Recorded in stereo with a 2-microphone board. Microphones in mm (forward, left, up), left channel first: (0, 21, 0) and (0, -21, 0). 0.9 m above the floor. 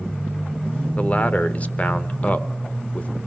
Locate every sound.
1.0 s a man speaking: 35° left (ahead or behind), 0.9 m